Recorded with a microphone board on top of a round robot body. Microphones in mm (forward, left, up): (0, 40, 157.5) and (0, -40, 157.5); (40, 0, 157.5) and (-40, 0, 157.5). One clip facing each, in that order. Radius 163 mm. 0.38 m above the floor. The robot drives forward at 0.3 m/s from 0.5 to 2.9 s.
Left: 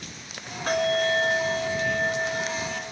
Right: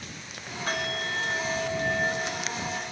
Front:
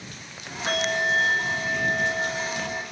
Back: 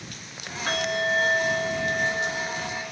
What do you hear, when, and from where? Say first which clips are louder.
0.7 s a bell: left 9 dB, front 1 dB; 60° left, 1.8 m; by 2.8 s 85° left, 1.7 m